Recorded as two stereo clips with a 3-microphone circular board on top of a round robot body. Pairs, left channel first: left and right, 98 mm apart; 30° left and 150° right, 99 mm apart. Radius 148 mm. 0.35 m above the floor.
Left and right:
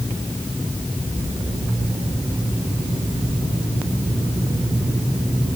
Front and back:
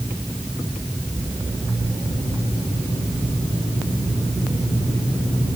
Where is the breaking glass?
No breaking glass in this recording.